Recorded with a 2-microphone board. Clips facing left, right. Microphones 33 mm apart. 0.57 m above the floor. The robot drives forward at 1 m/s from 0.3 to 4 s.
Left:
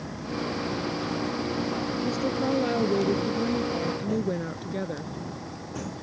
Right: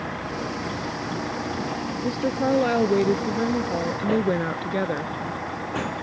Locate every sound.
0.0 s a vehicle: 45° right (ahead or behind); by 6.0 s 55° right (ahead or behind)
2.0 s a woman speaking: 35° right (ahead or behind); by 5.1 s 40° right (ahead or behind)